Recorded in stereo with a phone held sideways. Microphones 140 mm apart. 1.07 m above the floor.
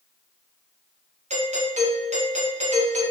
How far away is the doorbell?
About 1.1 m.